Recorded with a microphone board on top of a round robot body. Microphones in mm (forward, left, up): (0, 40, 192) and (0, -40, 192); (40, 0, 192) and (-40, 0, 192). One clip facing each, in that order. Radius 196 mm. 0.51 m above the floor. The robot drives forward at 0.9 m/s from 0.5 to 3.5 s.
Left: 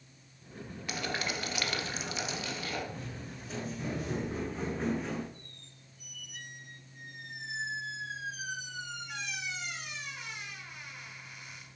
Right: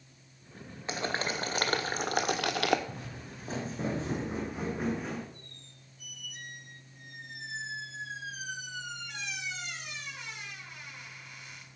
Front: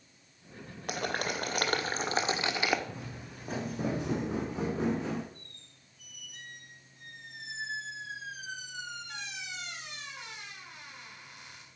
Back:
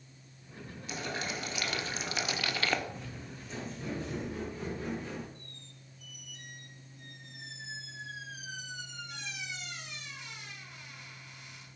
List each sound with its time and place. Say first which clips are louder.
0.9 s boiling: right 3 dB, front 4 dB; 30° right, 2 m; by 2.8 s 80° right, 1.1 m
2.9 s footsteps: left 1 dB, front 1 dB; 45° right, 3 m; by 5.2 s straight ahead, 3 m
5.3 s a squeak: right 1 dB, back 3 dB; 5° left, 6 m